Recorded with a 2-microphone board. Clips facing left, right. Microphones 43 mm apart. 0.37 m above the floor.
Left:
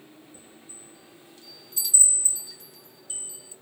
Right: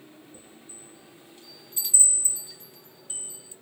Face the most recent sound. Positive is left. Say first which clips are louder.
# right 1 dB
turn(degrees=-25)  # may be behind; listen again after turning